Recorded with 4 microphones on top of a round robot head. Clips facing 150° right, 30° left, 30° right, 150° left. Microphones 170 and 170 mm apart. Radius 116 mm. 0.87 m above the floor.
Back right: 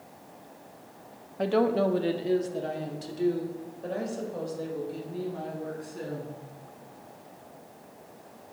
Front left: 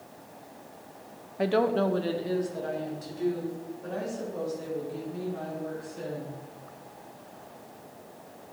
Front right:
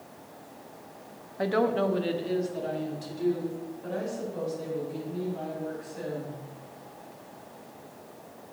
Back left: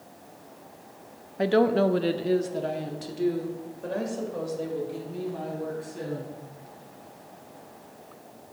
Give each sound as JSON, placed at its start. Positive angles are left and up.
{"t": 1.4, "sound": "a woman speaking", "azimuth_deg": 105, "distance_m": 0.5}